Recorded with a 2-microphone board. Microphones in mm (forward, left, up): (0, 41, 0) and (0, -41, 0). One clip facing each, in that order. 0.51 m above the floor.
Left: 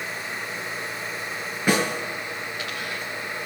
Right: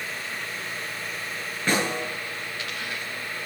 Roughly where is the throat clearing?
No throat clearing in this recording.